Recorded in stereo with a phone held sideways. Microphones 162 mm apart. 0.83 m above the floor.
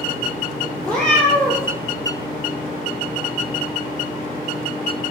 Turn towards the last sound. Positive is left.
turn(degrees=5)  # may be behind; listen again after turning